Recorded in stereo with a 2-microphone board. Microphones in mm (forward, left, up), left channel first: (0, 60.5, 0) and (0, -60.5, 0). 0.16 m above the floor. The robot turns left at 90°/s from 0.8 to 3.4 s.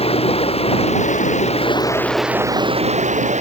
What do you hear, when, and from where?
0.0 s running water: 125° left; by 3.4 s 110° right